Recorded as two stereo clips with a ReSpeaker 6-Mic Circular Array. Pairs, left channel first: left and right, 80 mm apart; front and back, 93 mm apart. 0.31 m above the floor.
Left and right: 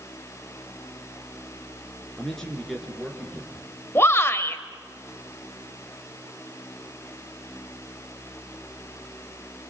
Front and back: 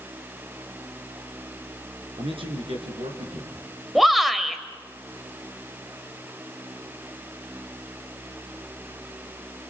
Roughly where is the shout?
Left.